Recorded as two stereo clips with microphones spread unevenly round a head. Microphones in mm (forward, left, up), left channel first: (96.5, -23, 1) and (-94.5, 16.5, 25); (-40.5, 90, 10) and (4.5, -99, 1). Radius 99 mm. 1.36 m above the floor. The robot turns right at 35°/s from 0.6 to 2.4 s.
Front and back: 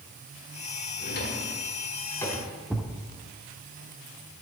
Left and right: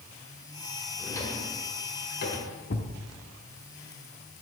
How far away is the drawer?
About 1.9 m.